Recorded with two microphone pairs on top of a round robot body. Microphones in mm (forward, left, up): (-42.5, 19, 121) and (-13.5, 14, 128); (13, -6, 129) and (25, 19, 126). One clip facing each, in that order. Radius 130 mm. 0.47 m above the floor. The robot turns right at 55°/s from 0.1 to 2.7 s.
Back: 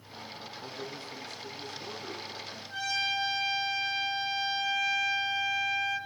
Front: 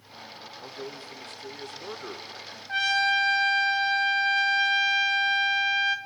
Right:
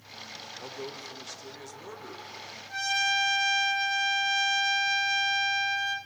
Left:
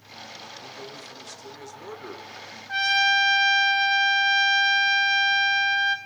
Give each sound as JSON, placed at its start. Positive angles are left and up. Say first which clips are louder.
{"t": 0.6, "sound": "a man speaking", "louder": "front 2 dB, even", "azimuth_deg": -75, "distance_m": 2.5}
{"t": 2.7, "sound": "a trumpet", "louder": "front 8 dB, left 7 dB", "azimuth_deg": 20, "distance_m": 2.5}